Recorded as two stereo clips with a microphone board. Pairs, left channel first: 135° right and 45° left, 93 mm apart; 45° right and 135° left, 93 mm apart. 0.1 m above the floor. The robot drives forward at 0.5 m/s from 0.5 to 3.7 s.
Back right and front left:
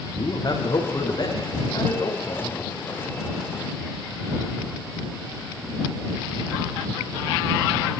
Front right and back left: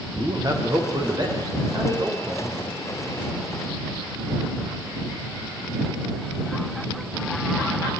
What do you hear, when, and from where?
0.1 s a man speaking: straight behind, 6.5 m